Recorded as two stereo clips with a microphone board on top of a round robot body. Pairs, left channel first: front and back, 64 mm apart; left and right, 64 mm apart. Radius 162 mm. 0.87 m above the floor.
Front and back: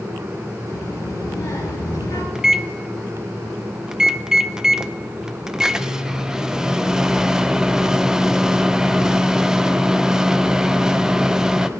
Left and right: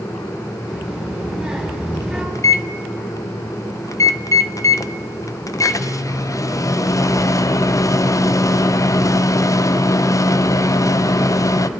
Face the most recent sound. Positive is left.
turn(degrees=100)